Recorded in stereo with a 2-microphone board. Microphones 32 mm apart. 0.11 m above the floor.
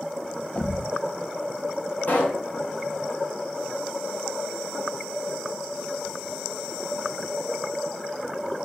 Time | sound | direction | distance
0.6 | a thud | 40° left (ahead or behind) | 0.7 m
2.1 | a pop | 60° left (ahead or behind) | 4.5 m